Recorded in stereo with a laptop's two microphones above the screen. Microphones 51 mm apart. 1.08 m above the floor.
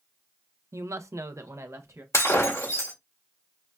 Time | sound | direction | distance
0.7 | a woman speaking | 65° right (ahead or behind) | 0.5 m
2.1 | breaking glass | 70° left (ahead or behind) | 1.8 m